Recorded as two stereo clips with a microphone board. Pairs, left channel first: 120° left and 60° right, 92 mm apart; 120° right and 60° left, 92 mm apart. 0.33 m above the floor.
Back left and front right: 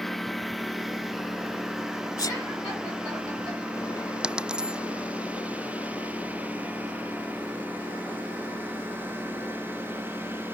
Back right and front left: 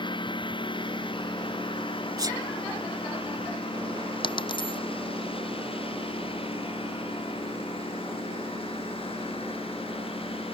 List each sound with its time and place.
0.0 s a lawn mower: 150° right; by 10.6 s 125° right
2.2 s a sneeze: 90° left
4.2 s a dropped coin: 140° right